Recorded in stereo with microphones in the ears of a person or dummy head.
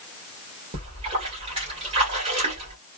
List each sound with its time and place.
0.7 s a splash: 35° right (ahead or behind), 1.8 m